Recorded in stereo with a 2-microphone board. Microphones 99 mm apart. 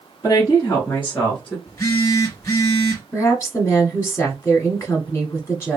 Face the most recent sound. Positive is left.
turn(degrees=25)  # may be behind; listen again after turning